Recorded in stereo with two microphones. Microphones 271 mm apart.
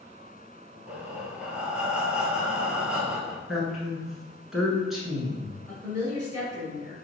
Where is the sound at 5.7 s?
5° left (ahead or behind), 1.5 m.